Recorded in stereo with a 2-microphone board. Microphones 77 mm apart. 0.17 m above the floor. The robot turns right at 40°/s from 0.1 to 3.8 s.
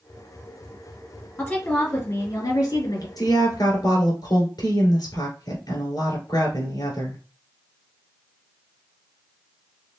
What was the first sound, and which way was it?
A woman speaking, 5° left.